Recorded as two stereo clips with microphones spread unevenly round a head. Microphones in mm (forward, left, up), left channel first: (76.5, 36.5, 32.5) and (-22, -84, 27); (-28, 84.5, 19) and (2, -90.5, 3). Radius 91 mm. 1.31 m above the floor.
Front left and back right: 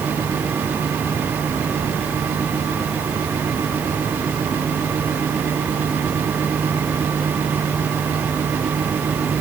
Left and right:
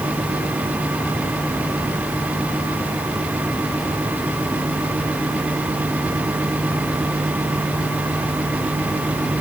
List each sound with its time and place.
Only background noise.